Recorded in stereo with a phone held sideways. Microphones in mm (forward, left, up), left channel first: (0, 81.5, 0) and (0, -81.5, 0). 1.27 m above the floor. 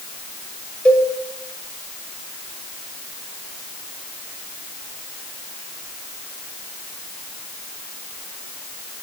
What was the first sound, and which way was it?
A cowbell, 5° left (ahead or behind).